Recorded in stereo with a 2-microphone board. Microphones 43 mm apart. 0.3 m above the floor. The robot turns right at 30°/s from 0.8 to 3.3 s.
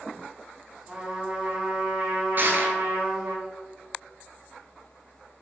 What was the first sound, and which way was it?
A trumpet, 155° right.